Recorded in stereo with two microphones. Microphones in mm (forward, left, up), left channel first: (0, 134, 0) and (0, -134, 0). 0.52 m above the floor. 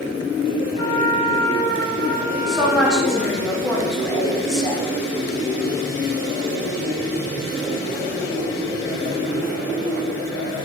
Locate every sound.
0.8 s a trumpet: 65° left (ahead or behind), 3 m
2.5 s a woman speaking: 5° left (ahead or behind), 1.5 m